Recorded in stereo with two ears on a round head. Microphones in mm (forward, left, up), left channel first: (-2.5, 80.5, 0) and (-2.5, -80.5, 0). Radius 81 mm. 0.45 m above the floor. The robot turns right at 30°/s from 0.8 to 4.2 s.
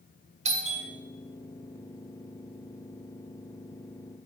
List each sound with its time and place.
0.5 s a doorbell: 40° right (ahead or behind), 3 m